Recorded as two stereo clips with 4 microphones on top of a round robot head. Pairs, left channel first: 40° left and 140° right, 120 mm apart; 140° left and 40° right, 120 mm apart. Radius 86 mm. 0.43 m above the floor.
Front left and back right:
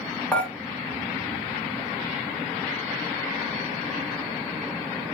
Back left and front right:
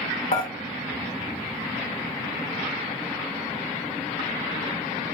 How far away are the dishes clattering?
About 1.0 m.